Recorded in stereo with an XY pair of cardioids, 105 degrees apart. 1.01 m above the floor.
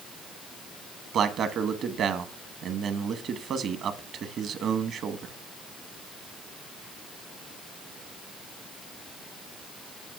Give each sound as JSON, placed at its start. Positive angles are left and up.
{"t": 1.1, "sound": "a man speaking", "azimuth_deg": -65, "distance_m": 1.4}